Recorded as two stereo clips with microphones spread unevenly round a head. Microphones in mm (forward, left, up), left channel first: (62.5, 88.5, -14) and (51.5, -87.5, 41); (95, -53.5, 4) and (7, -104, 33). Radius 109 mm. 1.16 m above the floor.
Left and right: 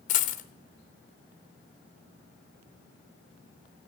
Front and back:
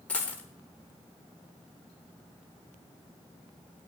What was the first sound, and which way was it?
A dropped coin, 130° left.